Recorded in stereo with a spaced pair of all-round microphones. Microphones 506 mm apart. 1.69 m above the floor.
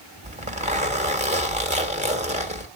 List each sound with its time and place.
0.2 s a zipper: 15° right (ahead or behind), 1.4 m